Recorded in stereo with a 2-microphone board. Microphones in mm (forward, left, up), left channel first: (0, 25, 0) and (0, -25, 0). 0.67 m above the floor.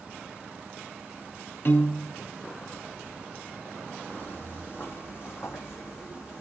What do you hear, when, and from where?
1.6 s a piano: 50° left (ahead or behind), 0.7 m
4.1 s footsteps: 35° left (ahead or behind), 0.9 m; by 6.4 s 65° left (ahead or behind), 2.0 m